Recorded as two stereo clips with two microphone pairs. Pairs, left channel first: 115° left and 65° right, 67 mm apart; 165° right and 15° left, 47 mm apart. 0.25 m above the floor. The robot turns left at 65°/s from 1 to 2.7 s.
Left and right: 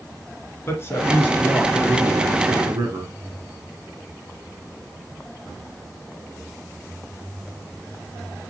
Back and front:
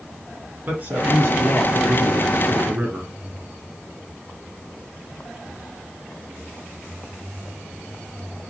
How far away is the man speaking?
About 3 m.